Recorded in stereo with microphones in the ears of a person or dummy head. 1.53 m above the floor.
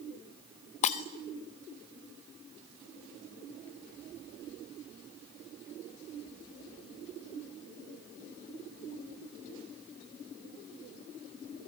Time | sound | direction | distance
0.8 | breaking glass | 30° left (ahead or behind) | 0.8 m